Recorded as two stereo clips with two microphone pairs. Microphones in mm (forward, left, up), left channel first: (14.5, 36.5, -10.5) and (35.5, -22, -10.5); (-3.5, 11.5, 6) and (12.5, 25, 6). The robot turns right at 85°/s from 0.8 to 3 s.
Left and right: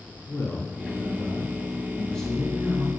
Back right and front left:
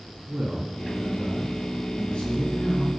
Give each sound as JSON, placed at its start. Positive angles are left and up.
{"t": 0.3, "sound": "a man speaking", "azimuth_deg": 70, "distance_m": 2.5}